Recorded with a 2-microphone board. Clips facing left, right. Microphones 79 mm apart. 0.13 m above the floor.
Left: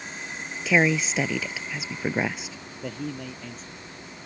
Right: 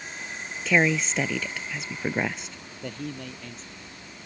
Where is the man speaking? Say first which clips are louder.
Left 2 dB; 5° left (ahead or behind).